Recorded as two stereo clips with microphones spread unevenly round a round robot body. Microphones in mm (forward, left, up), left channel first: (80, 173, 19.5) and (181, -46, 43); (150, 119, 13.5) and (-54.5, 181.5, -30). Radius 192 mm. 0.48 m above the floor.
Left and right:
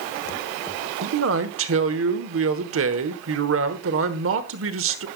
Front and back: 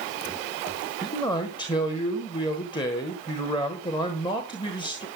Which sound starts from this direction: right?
A man speaking, at 1.0 s.